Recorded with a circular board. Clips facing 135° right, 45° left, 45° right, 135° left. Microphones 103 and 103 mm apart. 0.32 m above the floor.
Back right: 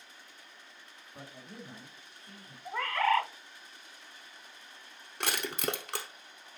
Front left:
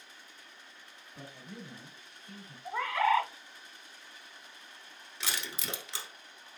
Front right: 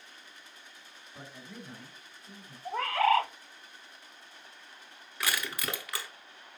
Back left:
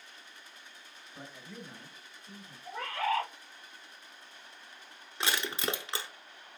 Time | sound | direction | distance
1.1 | a man speaking | 125° right | 1.9 m
2.6 | a bird | 40° right | 0.5 m
5.2 | crushing | 160° right | 0.7 m